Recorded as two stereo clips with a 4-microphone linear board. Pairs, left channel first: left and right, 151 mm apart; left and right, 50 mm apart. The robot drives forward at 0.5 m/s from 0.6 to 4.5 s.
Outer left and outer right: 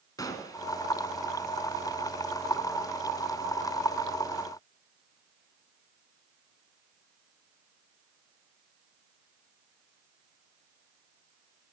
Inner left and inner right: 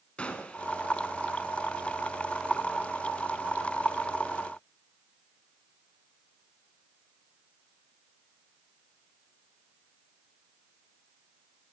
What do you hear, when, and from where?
0.2 s a gunshot: 25° left (ahead or behind), 1.3 m